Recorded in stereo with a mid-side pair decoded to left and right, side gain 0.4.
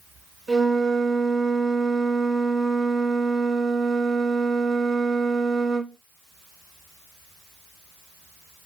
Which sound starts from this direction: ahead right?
A flute, at 0.5 s.